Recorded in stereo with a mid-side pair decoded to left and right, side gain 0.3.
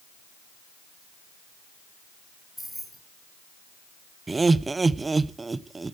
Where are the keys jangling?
10° right, 4 m.